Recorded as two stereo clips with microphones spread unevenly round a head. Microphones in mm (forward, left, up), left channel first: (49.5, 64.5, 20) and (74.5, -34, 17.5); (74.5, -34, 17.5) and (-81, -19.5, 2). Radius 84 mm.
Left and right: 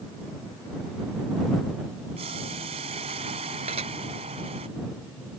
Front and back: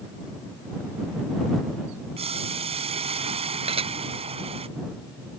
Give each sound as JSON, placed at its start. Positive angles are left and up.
{"t": 2.2, "sound": "boiling", "azimuth_deg": -130}
{"t": 3.7, "sound": "dishes clattering", "azimuth_deg": -130}